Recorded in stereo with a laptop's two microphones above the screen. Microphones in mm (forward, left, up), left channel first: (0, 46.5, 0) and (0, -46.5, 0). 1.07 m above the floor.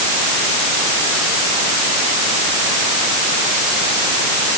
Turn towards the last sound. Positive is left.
No sound to turn to.